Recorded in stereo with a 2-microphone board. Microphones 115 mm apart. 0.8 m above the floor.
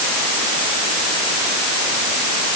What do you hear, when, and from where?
Only background noise.